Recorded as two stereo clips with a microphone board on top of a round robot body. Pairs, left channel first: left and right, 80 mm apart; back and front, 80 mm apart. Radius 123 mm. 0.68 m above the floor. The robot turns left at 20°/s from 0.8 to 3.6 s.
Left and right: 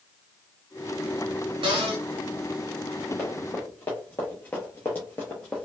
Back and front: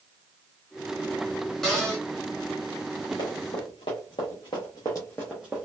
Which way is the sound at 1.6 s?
95° right.